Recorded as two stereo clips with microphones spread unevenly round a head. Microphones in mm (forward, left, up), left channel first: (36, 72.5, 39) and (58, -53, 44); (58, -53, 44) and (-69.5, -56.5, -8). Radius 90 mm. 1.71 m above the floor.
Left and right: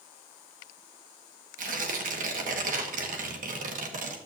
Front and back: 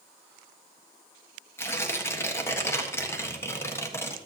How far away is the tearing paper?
About 1.5 m.